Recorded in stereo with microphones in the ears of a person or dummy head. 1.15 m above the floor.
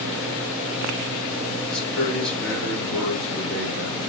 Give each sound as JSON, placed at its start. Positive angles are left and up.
{"t": 1.7, "sound": "a man speaking", "side_deg": 5, "distance_m": 2.0}